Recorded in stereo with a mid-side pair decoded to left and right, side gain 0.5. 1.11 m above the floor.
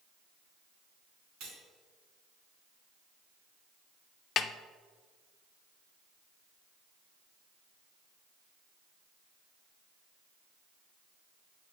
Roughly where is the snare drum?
Ahead left.